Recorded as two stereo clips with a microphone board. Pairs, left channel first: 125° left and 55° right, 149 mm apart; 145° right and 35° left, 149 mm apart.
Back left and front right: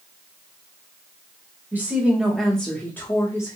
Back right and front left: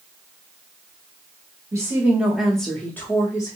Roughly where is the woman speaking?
Ahead.